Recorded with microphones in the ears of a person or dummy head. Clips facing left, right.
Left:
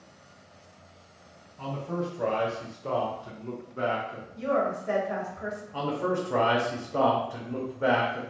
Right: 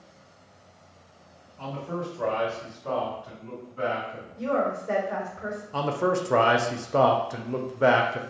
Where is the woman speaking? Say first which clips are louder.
Right 1 dB; 80° left, 1.3 m.